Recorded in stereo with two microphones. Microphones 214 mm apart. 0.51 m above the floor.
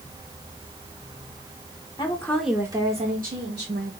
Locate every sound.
2.0 s a woman speaking: 20° left (ahead or behind), 1.3 m; by 3.9 s 60° right (ahead or behind), 1.9 m